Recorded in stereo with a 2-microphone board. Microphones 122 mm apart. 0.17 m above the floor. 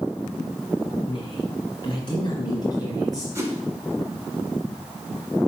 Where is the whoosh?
25° right (ahead or behind), 1.5 m.